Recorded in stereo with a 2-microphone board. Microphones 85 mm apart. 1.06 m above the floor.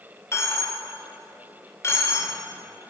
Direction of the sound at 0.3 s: 35° left (ahead or behind).